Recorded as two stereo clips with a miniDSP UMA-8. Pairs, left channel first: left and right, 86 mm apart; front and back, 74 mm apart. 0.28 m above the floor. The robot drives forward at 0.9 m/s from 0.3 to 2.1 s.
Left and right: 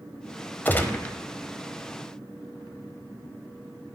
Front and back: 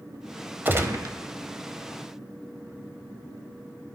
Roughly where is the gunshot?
Behind left.